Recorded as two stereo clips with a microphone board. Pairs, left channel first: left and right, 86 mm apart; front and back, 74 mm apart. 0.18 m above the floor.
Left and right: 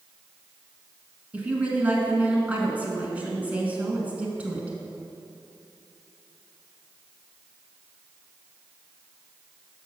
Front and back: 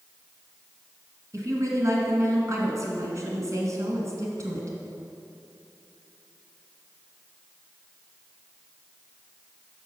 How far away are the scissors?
No scissors in this recording.